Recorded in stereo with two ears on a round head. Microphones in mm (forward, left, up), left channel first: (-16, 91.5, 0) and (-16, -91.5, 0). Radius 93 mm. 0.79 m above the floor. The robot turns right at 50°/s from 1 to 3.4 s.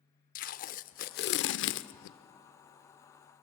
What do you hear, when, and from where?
0.3 s tape being pulled: 40° left (ahead or behind), 0.7 m; by 2.2 s 60° left (ahead or behind), 0.7 m